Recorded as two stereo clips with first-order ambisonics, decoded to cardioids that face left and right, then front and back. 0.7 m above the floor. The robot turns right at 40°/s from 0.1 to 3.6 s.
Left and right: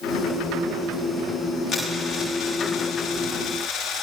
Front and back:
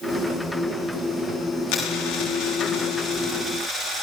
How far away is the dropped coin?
About 8 m.